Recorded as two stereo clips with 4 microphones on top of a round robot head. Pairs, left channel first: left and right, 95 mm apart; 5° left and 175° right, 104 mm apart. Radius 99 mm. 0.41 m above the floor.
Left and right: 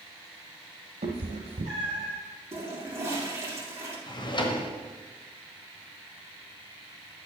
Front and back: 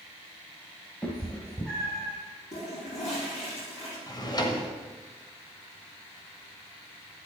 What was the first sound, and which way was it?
A cat meowing, 70° right.